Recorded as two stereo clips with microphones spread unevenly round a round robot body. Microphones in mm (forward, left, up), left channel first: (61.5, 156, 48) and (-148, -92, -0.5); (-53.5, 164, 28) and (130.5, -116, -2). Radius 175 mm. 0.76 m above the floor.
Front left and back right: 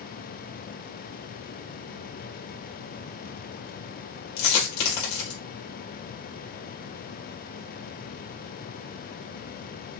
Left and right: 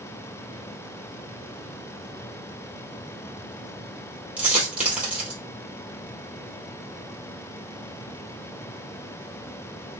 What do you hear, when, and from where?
4.4 s a dropped coin: 30° left, 3 m